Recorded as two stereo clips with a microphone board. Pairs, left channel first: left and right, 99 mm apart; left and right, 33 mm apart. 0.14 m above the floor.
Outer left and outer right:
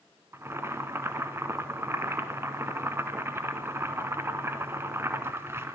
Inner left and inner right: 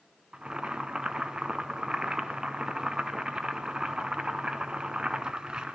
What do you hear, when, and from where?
0.3 s boiling: 25° right (ahead or behind), 1.0 m